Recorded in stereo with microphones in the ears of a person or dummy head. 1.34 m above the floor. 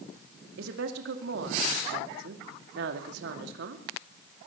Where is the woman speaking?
70° right (ahead or behind), 2 m.